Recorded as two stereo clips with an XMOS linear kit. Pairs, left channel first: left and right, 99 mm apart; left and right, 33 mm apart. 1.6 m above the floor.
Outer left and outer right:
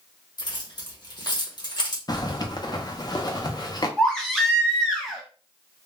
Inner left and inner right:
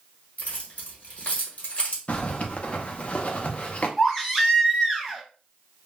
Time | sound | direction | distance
0.4 | keys jangling | 45° left (ahead or behind) | 1.1 m
2.1 | a zipper | 40° left (ahead or behind) | 0.6 m
4.0 | a baby crying | 5° left (ahead or behind) | 1.0 m